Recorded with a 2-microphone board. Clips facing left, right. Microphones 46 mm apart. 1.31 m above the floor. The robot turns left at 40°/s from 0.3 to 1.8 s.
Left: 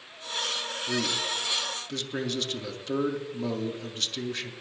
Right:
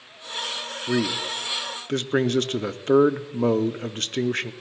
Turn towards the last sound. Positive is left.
turn(degrees=-85)